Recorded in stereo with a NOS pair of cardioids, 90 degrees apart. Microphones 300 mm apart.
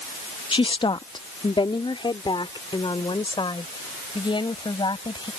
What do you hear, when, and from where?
0.5 s a woman speaking: 15° left